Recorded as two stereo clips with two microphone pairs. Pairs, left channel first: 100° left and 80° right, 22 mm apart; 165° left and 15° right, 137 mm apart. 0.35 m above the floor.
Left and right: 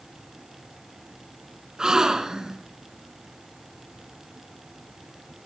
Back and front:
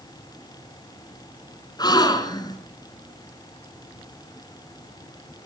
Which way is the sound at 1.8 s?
135° right.